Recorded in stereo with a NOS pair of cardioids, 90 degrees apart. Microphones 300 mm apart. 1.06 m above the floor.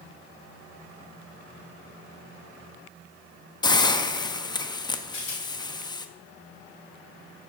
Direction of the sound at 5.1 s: 45° left.